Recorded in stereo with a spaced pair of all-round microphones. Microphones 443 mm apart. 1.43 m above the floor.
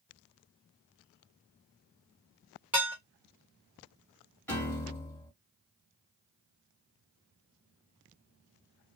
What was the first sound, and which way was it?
Dishes clattering, 5° right (ahead or behind).